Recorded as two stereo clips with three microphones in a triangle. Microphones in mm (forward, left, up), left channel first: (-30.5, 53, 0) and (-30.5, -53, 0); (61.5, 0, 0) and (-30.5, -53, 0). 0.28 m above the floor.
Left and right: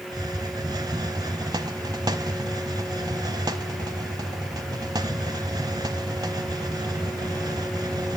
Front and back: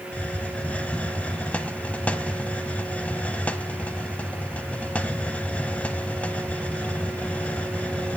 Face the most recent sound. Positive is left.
turn(degrees=-45)